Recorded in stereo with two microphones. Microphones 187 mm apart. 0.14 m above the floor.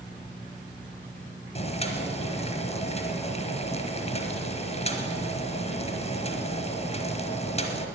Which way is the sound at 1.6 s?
35° left (ahead or behind).